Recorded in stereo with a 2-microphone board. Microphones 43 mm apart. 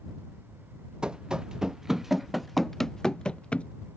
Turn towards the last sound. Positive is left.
turn(degrees=30)  # may be behind; listen again after turning